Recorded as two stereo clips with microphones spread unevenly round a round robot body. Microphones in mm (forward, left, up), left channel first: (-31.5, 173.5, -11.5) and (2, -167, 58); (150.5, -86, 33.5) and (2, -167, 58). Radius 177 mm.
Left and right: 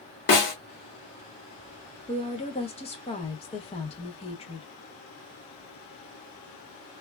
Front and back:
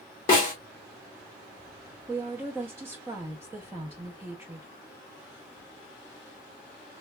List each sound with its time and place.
0.3 s a snare drum: 70° left, 1.2 m
2.1 s a woman speaking: 130° left, 0.6 m